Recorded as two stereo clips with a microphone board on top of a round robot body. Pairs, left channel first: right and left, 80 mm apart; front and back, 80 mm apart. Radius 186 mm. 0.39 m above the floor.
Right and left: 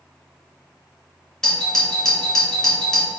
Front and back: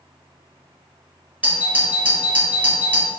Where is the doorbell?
160° right, 1.8 m.